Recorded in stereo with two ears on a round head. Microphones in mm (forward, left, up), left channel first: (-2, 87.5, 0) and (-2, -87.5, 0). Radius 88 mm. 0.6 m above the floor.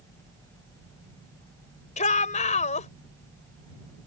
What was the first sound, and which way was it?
A shout, 40° left (ahead or behind).